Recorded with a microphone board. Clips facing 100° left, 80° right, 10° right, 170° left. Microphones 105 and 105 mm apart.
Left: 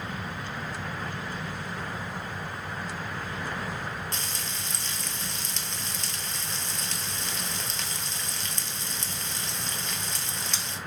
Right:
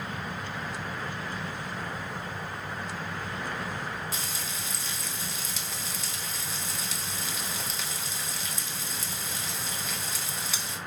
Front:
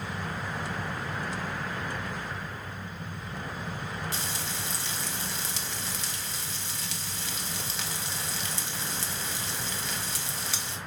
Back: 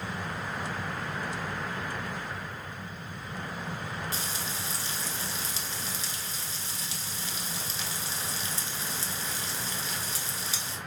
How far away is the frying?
About 0.6 m.